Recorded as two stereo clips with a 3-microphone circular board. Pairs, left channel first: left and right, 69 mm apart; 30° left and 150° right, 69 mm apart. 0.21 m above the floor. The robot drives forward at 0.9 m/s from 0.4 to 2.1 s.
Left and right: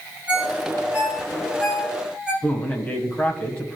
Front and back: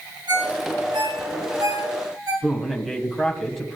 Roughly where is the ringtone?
Behind.